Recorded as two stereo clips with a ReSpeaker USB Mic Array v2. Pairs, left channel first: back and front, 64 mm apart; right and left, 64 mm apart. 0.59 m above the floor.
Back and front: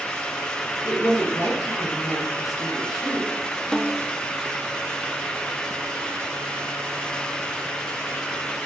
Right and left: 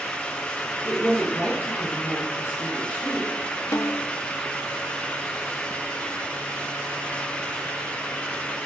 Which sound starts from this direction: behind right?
A woman speaking, at 0.8 s.